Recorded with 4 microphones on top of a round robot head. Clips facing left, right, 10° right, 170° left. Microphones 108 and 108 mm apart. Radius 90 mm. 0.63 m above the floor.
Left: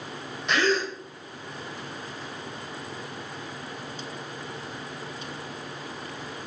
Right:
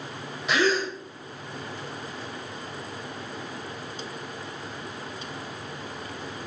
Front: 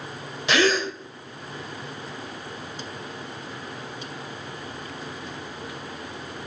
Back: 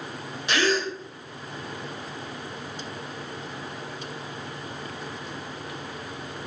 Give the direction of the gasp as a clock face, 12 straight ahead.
12 o'clock.